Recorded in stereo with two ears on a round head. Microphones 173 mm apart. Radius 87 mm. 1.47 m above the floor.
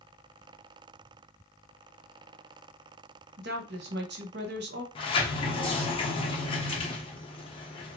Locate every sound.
3.4 s a woman speaking: 60° right (ahead or behind), 1.0 m
5.0 s a sliding door: 25° left (ahead or behind), 0.7 m